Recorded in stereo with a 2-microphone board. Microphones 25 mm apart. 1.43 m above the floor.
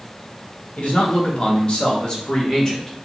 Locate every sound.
0.8 s a man speaking: 50° left (ahead or behind), 1.9 m; by 3.1 s 15° left (ahead or behind), 1.7 m